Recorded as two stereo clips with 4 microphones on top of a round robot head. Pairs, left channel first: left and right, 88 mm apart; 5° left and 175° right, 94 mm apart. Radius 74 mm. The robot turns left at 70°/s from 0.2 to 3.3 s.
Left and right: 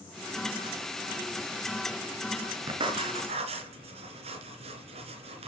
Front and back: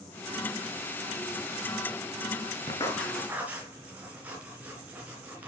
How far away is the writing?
About 3 m.